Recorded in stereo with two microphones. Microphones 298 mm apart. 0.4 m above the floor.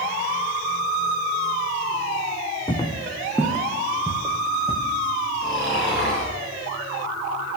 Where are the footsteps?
15° left (ahead or behind), 1.0 m; by 4.8 s 15° right (ahead or behind), 2 m.